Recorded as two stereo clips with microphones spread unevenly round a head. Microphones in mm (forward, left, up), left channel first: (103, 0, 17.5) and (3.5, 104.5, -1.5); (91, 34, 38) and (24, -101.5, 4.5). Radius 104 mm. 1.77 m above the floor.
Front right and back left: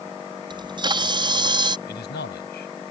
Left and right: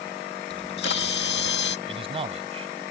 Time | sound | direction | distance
0.5 | a camera shutter | 75° left | ?
1.9 | a man speaking | 60° right | ?